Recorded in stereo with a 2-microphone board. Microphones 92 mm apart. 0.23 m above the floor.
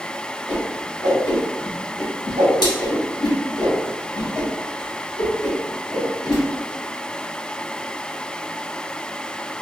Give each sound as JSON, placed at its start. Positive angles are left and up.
{"t": 0.5, "sound": "a whoosh", "side_deg": 55, "distance_m": 2.0}